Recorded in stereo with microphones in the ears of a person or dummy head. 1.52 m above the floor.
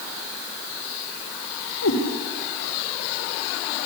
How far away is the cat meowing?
About 5.5 m.